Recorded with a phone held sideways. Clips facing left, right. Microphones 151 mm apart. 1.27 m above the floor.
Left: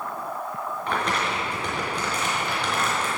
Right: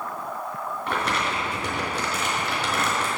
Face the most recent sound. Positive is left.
turn(degrees=-5)  # may be behind; listen again after turning